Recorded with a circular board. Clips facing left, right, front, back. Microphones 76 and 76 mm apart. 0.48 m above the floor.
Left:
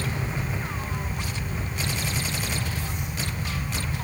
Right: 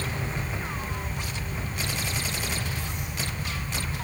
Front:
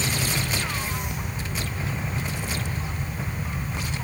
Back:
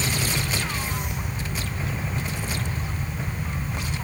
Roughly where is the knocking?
No knocking in this recording.